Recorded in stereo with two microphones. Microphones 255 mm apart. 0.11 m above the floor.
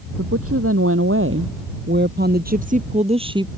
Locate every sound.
0.2 s a woman speaking: 65° right (ahead or behind); by 3.5 s 15° right (ahead or behind)